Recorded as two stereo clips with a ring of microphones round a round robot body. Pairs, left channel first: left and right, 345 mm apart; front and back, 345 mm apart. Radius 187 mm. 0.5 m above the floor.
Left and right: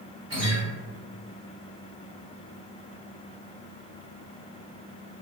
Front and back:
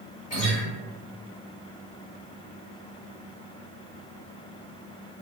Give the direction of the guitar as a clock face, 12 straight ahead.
1 o'clock.